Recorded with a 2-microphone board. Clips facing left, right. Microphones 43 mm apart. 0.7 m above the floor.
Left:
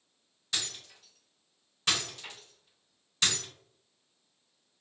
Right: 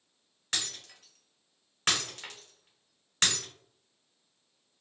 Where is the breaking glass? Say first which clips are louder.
Even; 55° right (ahead or behind), 1.2 m.